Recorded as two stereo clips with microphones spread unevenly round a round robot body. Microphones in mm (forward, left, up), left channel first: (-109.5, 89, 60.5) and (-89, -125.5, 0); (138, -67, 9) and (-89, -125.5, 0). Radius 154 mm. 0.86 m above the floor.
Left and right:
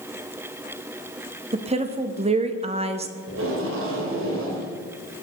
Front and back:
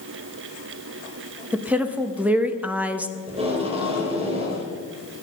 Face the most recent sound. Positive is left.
turn(degrees=-100)